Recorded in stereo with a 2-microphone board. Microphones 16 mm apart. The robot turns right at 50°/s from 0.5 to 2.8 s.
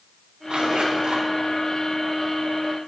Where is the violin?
I don't hear a violin.